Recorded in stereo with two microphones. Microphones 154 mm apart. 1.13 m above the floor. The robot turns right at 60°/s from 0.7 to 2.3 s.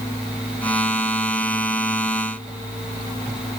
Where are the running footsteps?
I don't hear running footsteps.